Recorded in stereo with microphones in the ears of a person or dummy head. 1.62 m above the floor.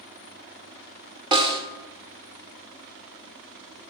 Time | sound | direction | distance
1.3 | a snare drum | 25° right (ahead or behind) | 1.1 m